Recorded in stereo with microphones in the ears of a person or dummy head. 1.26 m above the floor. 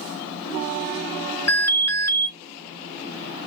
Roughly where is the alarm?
Centre.